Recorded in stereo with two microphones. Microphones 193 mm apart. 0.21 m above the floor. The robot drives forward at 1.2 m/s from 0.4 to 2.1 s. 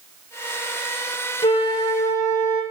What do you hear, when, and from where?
1.4 s a flute: 30° left (ahead or behind), 0.8 m; by 2.6 s 15° left (ahead or behind), 1.6 m